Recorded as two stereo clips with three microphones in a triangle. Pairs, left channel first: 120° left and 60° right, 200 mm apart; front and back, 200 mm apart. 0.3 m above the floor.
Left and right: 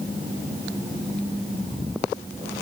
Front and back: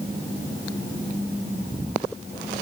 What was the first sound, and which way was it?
Only background noise.